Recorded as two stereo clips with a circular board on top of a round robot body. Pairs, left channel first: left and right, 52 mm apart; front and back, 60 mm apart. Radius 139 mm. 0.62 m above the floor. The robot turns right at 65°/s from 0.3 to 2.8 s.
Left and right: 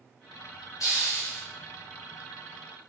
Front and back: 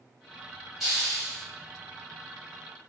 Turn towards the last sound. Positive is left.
turn(degrees=-135)